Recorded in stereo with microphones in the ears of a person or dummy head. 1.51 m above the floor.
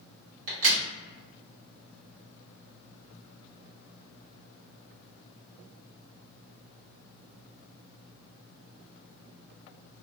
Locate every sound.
0.5 s a crack: 80° right, 1.5 m